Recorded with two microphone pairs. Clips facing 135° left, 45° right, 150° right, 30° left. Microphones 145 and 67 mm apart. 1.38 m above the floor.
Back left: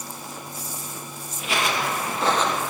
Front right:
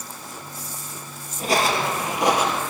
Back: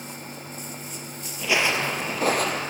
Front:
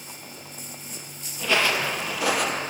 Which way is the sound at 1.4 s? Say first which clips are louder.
Front right 4 dB, front 1 dB; 70° right.